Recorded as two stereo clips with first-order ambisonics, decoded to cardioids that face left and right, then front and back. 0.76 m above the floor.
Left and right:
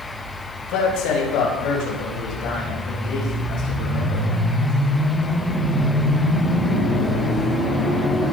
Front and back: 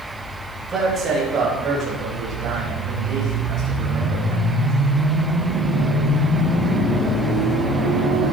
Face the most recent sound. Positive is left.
turn(degrees=135)